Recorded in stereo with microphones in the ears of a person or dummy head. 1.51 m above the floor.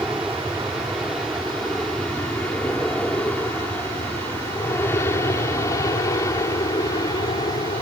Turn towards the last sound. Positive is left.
turn(degrees=25)  # may be behind; listen again after turning